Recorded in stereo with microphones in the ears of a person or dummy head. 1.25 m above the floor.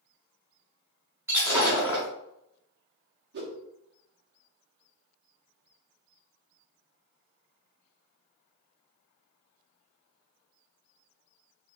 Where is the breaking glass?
10° right (ahead or behind), 1.3 m.